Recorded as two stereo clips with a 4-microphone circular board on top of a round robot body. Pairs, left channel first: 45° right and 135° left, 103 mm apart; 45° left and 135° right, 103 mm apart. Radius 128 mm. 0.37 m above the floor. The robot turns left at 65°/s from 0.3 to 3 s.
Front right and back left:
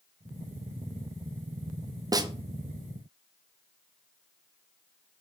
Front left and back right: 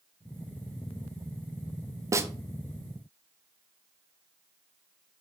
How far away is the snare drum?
About 0.5 m.